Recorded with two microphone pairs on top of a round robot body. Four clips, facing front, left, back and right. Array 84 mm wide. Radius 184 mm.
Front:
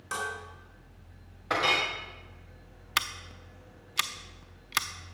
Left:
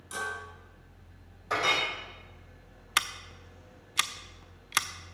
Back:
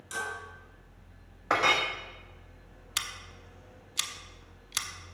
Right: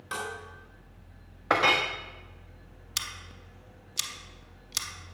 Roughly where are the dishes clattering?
Ahead right.